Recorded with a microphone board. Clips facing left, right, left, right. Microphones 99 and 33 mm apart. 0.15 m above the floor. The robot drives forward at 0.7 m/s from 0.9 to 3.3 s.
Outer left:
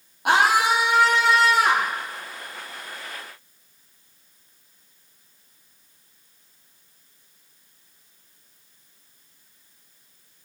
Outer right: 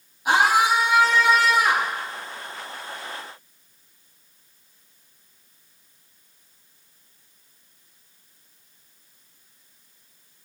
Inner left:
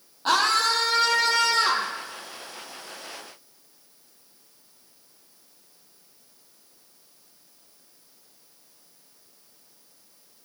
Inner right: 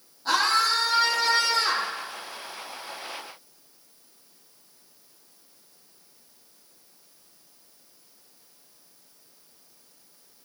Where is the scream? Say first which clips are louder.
Even, inner left 1 dB; 65° left (ahead or behind), 6 m; by 1.9 s 70° left (ahead or behind), 5.5 m.